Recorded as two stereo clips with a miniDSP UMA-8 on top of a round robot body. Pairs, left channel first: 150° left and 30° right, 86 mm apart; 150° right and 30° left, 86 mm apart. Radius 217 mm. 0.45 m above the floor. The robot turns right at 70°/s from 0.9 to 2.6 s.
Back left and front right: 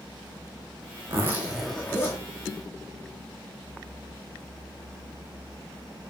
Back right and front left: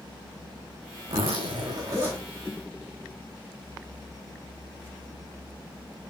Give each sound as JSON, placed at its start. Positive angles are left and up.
{"t": 1.1, "sound": "a zipper", "azimuth_deg": 25, "distance_m": 9.0}